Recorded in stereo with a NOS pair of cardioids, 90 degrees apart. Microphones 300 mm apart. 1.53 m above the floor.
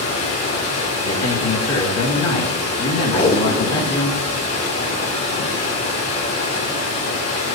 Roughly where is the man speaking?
Ahead left.